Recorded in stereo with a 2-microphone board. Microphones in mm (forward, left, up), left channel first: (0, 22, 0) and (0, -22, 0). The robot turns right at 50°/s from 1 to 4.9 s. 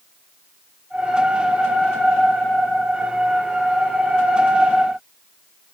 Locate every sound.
Only background noise.